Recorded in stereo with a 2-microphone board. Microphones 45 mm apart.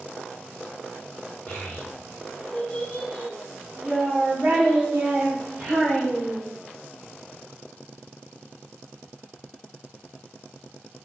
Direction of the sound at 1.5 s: 40° left (ahead or behind).